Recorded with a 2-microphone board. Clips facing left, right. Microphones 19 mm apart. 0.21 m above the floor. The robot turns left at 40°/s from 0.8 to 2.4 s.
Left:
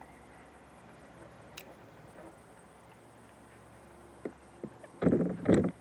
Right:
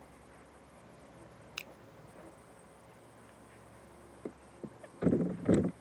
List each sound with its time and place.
0.0 s a vehicle: 95° left; by 5.8 s 30° left
1.6 s a finger snap: 40° right (ahead or behind); by 1.7 s 45° right (ahead or behind)
4.2 s a thud: 40° left (ahead or behind)